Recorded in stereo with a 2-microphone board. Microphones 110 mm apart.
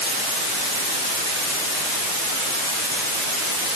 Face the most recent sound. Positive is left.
No sound to turn to.